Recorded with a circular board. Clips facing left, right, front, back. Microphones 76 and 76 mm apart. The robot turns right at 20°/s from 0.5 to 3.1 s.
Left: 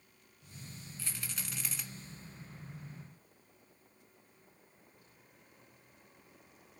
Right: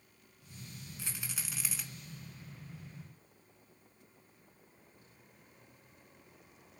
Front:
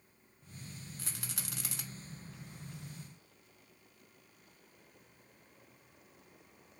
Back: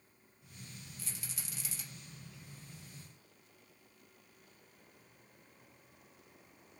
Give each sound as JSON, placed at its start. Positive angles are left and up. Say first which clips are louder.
{"t": 1.0, "sound": "a rattle", "louder": "even, front 3 dB", "azimuth_deg": -20, "distance_m": 0.9}